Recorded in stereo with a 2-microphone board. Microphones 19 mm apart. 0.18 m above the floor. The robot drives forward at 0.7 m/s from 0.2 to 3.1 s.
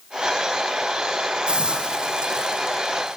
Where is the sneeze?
No sneeze in this recording.